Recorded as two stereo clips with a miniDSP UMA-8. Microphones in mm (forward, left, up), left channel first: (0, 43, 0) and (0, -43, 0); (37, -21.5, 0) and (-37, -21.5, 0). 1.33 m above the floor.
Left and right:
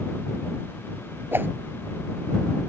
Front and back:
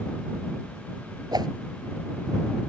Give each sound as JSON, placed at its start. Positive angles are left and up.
{"t": 1.3, "sound": "a whoosh", "azimuth_deg": -155}